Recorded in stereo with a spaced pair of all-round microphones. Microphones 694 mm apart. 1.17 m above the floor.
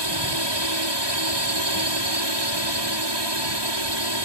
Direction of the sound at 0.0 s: 35° right (ahead or behind).